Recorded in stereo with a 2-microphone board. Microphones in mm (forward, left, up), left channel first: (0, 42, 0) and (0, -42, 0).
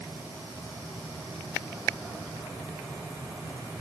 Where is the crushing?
No crushing in this recording.